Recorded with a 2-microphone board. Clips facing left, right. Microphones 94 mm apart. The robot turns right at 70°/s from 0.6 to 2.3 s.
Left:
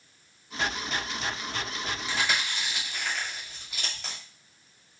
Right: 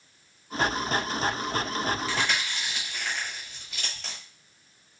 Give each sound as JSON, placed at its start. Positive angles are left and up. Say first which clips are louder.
{"t": 2.1, "sound": "chewing", "louder": "right 1 dB", "side_deg": 20, "distance_m": 1.6}